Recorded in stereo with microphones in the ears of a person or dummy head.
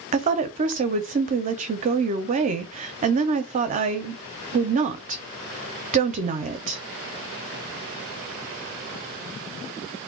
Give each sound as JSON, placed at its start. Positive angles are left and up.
{"t": 0.1, "sound": "a woman speaking", "side_deg": -40, "distance_m": 0.5}